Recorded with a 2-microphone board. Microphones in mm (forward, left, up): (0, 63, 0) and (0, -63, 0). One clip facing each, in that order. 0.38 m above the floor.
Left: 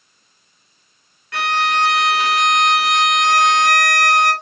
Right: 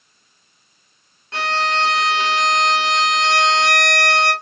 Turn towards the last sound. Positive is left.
turn(degrees=-30)  # may be behind; listen again after turning